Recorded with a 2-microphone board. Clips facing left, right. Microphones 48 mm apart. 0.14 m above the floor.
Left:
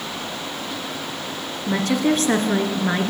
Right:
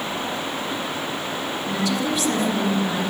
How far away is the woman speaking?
About 2 m.